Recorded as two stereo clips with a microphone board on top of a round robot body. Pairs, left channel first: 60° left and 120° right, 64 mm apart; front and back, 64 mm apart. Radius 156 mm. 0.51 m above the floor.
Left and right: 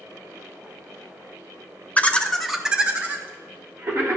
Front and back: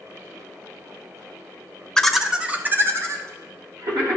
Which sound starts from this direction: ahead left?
Laughter, at 2.0 s.